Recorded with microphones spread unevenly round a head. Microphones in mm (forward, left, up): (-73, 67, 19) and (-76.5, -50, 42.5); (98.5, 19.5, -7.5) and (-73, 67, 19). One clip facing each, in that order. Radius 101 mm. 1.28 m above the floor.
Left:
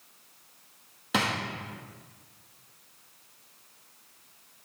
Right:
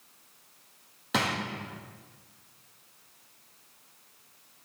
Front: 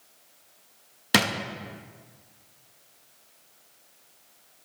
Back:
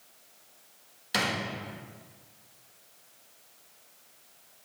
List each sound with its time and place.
1.1 s a drawer: 5° right, 0.9 m